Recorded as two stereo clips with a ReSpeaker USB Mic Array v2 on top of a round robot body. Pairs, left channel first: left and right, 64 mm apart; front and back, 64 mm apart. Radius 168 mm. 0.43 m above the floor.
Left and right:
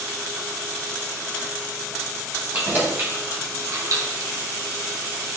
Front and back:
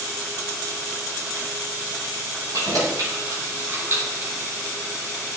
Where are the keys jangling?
155° right, 2.5 m; by 4.3 s 110° right, 1.6 m.